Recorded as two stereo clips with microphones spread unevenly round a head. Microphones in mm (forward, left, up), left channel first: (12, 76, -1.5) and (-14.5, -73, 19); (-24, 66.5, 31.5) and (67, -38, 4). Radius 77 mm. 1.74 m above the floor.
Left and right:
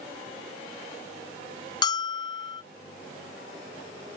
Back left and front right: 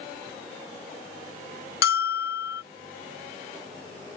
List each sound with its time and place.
1.8 s a bell: 145° left